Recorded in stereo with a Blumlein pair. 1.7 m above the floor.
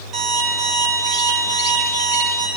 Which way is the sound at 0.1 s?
35° right.